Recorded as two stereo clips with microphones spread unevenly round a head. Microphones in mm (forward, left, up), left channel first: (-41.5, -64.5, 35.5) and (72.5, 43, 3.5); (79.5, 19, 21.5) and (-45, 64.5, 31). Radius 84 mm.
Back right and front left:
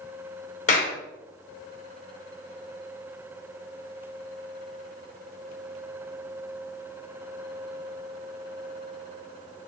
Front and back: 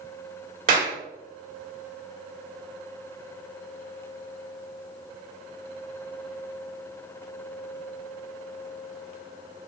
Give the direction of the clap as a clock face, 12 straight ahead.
6 o'clock.